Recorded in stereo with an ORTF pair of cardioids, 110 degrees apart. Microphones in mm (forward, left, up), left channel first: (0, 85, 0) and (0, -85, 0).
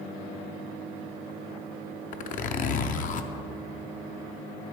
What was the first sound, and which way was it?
A zipper, 50° left.